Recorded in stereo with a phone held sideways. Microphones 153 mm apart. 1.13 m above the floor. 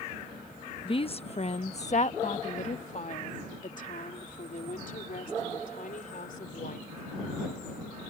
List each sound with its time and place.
0.8 s a woman speaking: 35° left (ahead or behind); by 6.9 s 65° left (ahead or behind)